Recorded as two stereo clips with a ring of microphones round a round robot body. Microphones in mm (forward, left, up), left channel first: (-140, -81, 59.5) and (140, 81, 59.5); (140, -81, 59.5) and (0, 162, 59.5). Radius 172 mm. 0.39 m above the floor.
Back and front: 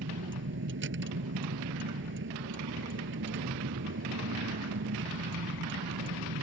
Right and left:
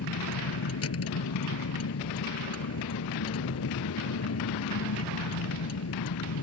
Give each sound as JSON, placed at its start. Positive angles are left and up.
{"t": 0.0, "sound": "a vehicle", "azimuth_deg": -25}